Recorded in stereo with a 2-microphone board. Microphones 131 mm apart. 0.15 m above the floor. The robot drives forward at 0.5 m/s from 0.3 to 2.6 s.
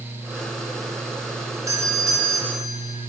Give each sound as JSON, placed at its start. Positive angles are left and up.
{"t": 1.7, "sound": "a doorbell", "side_deg": -25, "distance_m": 1.9}